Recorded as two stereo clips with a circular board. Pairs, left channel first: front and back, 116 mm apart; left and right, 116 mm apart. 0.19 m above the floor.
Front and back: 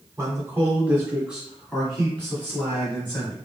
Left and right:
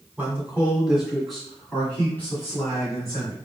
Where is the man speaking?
150° right, 1.8 m; by 3.4 s 50° left, 2.0 m.